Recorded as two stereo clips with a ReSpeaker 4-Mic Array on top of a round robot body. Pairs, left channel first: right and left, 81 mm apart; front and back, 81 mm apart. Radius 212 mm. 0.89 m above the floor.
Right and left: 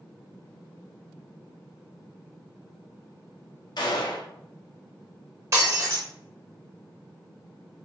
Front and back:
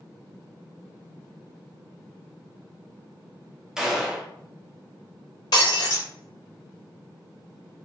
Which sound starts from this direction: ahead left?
Breaking glass, at 5.5 s.